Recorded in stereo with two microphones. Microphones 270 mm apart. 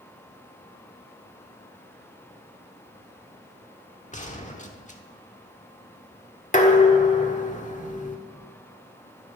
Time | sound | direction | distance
4.1 | a gunshot | 25° left (ahead or behind) | 1.2 m
6.5 | dishes clattering | 30° left (ahead or behind) | 1.2 m